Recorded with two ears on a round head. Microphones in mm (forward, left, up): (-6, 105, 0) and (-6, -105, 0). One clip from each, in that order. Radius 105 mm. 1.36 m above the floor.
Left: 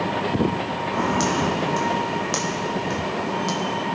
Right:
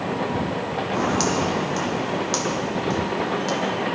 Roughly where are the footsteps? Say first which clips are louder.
Even; centre.